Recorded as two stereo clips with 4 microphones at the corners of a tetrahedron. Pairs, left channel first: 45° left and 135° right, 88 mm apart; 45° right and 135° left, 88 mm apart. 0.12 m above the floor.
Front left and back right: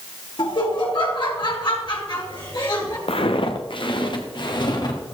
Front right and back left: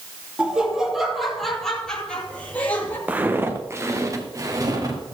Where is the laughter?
55° left, 2.5 m; by 3.0 s 20° left, 2 m.